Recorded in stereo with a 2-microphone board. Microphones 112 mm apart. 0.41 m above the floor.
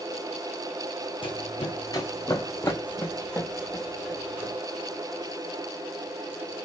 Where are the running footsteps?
50° left (ahead or behind), 1.2 m; by 4.5 s 5° right (ahead or behind), 2 m.